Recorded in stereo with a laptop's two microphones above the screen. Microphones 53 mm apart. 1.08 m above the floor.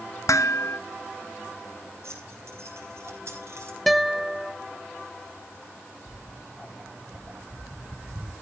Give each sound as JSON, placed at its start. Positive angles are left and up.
{"t": 0.3, "sound": "dishes clattering", "side_deg": 80, "distance_m": 0.8}
{"t": 2.0, "sound": "keys jangling", "side_deg": -65, "distance_m": 7.0}
{"t": 3.9, "sound": "a guitar", "side_deg": 0, "distance_m": 0.9}
{"t": 6.1, "sound": "footsteps", "side_deg": -15, "distance_m": 3.0}